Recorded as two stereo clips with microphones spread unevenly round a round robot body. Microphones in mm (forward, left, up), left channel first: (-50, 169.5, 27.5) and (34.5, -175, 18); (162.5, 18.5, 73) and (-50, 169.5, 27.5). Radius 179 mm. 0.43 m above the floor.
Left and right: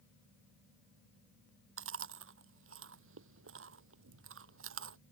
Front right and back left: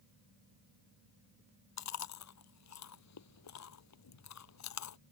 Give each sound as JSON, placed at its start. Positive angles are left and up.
{"t": 1.8, "sound": "chewing", "azimuth_deg": -20}